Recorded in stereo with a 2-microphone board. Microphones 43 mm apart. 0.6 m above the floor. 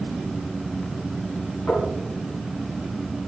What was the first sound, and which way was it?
Knocking, 40° left (ahead or behind).